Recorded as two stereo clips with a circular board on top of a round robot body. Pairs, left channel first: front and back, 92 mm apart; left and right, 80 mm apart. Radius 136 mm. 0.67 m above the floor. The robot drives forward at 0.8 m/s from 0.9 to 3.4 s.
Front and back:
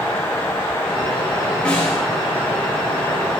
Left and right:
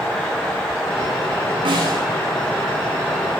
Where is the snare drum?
80° right, 6 m.